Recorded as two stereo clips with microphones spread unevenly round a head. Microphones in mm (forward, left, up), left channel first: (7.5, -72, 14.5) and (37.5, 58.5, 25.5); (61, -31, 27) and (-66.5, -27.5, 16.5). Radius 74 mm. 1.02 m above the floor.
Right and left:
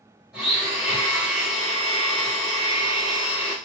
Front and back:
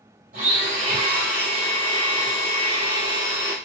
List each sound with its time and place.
0.3 s a blender: 165° left, 2.5 m